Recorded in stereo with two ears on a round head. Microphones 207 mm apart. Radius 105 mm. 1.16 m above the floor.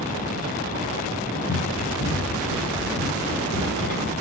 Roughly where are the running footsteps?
Left.